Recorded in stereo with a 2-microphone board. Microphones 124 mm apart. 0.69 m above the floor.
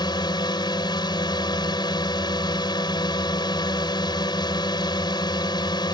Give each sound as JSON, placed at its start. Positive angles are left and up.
{"t": 0.0, "sound": "a drone", "side_deg": 35}